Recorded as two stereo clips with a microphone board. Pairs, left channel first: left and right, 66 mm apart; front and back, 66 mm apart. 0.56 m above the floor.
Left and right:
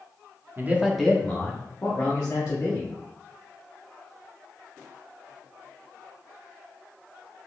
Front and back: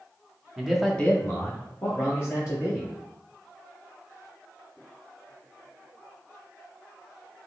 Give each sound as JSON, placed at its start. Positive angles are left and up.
{"t": 0.6, "sound": "a man speaking", "azimuth_deg": -110, "distance_m": 0.7}